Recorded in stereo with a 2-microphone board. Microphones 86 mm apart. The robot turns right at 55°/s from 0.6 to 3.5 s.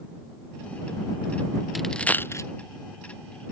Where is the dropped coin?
Centre (ahead or behind); by 2.5 s 40° left (ahead or behind).